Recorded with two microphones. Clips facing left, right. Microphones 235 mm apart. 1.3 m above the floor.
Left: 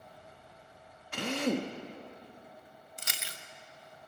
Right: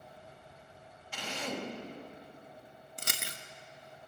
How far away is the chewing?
About 0.9 m.